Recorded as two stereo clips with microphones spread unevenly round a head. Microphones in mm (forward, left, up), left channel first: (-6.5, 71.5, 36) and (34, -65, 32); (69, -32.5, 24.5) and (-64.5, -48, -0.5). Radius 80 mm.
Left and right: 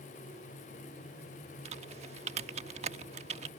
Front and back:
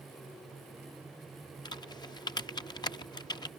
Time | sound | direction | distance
1.6 | typing on a keyboard | 35° right | ?